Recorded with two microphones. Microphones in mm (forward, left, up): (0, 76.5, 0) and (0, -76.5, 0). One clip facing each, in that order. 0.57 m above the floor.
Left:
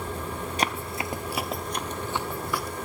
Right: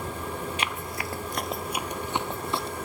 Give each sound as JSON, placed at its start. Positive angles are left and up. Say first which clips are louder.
{"t": 0.6, "sound": "running footsteps", "louder": "left 3 dB", "side_deg": 40, "distance_m": 0.7}